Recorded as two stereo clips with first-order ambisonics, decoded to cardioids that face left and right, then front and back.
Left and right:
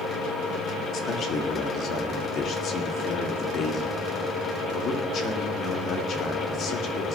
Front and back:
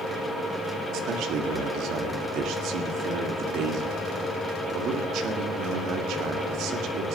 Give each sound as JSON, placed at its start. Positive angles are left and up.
{"t": 0.9, "sound": "a man speaking", "azimuth_deg": 140, "distance_m": 1.8}